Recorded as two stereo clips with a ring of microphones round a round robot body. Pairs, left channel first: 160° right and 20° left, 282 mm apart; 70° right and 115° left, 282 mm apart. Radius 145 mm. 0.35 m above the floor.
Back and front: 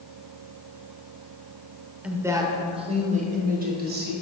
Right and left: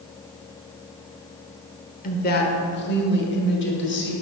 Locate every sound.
2.0 s a woman speaking: 60° right, 1.2 m; by 4.1 s 25° right, 2 m